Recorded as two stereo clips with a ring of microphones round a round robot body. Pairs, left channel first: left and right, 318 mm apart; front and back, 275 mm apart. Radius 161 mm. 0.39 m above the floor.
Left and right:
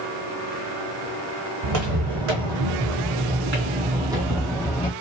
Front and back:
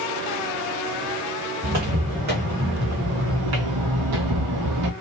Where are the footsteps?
110° right, 1.7 m; by 4.9 s 165° left, 1.1 m.